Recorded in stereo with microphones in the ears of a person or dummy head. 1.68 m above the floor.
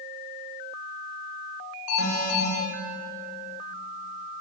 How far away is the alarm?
About 9.5 m.